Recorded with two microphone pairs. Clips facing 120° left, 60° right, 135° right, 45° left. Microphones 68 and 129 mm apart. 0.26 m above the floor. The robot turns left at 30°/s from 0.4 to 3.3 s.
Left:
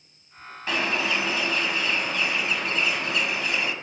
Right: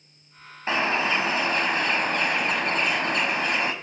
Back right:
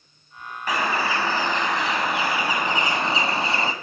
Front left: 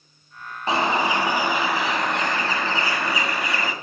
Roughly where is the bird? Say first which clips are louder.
Right 2 dB, front left 3 dB; ahead.